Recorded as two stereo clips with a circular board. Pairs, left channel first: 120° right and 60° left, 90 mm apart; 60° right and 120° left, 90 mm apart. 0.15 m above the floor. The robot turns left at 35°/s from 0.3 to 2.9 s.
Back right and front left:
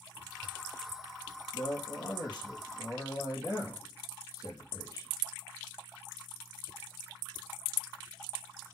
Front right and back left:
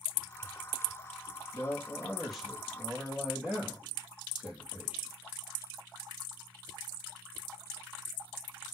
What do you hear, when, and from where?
1.5 s a man speaking: 120° right, 3.5 m; by 5.1 s 165° right, 3.5 m